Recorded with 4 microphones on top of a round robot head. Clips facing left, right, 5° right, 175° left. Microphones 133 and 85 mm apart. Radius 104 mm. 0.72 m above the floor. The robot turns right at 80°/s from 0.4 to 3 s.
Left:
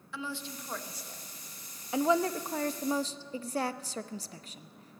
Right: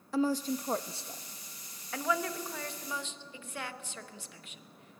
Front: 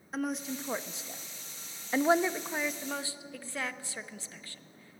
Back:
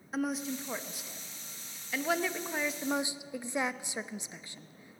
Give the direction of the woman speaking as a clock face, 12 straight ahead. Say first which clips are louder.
Right 11 dB, back 1 dB; 3 o'clock.